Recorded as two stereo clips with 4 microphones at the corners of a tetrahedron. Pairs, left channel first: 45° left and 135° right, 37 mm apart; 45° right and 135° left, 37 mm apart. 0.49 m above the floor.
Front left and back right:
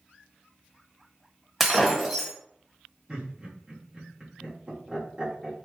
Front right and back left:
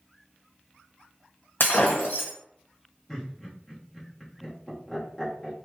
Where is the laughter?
95° right, 1.2 m.